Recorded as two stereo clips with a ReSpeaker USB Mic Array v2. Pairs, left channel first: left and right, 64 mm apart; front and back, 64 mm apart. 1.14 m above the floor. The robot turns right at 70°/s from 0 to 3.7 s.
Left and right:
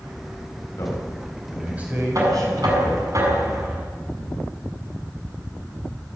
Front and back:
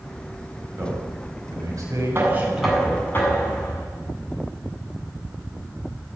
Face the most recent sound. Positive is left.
turn(degrees=-20)